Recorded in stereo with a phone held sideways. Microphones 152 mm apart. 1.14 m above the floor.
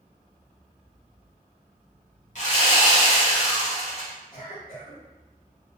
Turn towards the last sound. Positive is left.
turn(degrees=75)  # may be behind; listen again after turning